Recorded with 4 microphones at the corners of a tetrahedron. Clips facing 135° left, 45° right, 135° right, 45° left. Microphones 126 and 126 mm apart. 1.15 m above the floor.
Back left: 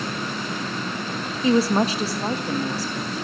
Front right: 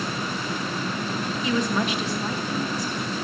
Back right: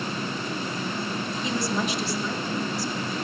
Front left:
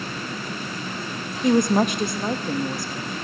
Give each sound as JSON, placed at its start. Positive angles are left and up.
{"t": 1.4, "sound": "a woman speaking", "azimuth_deg": 80, "distance_m": 0.9}